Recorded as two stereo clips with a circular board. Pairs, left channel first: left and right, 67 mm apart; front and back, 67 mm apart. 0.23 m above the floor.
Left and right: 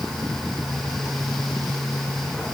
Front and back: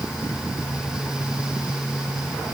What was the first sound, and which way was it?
Only background noise.